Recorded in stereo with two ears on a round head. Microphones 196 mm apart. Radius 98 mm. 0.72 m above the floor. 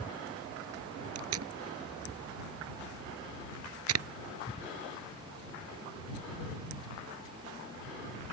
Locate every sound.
1.1 s tape being pulled: 75° right (ahead or behind)